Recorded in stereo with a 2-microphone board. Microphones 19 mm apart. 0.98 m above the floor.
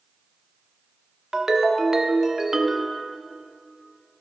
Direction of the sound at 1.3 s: 30° right (ahead or behind).